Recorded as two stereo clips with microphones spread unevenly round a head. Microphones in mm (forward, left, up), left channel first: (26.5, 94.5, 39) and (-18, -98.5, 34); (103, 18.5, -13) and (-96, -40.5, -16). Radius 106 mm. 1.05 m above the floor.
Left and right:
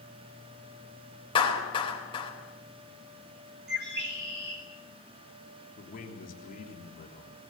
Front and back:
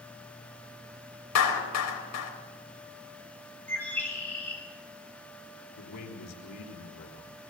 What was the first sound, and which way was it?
A clap, 10° left.